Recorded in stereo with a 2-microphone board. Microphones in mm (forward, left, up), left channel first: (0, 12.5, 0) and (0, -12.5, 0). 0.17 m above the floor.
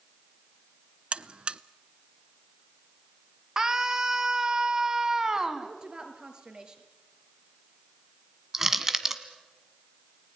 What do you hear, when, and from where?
1.1 s a buzzer: 45° right (ahead or behind), 0.5 m
3.6 s a scream: 25° right (ahead or behind), 1.8 m
5.6 s a woman speaking: 30° right (ahead or behind), 3 m
8.5 s crushing: 15° right (ahead or behind), 1.4 m